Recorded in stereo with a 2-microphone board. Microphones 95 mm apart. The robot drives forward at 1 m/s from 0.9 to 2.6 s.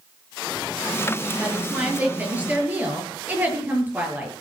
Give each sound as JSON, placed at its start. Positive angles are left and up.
{"t": 1.4, "sound": "a woman speaking", "side_deg": -15, "distance_m": 8.0}